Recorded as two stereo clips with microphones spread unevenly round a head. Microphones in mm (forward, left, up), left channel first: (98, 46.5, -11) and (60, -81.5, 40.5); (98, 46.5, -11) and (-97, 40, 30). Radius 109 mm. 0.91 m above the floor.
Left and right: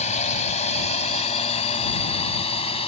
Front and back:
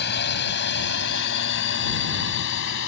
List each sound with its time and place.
0.0 s a drone: 35° left; by 2.9 s 25° left